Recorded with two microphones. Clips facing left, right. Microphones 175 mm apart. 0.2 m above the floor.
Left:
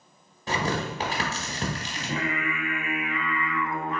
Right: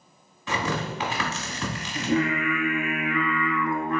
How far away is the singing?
About 1.4 m.